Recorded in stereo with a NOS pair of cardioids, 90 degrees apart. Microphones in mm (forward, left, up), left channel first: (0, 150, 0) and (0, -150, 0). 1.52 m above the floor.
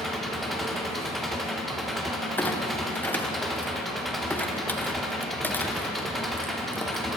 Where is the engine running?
Straight ahead, 1.2 m.